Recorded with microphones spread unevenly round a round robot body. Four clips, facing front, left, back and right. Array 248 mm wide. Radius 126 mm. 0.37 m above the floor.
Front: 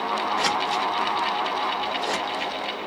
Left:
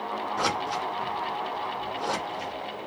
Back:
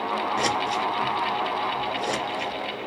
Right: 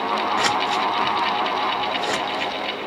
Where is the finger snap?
I don't hear a finger snap.